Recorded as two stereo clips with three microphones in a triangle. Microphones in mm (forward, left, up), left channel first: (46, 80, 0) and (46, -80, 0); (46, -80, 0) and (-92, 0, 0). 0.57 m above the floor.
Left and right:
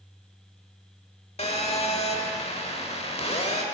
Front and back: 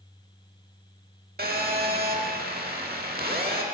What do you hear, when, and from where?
1.4 s a phone buzzing: 140° left, 1.1 m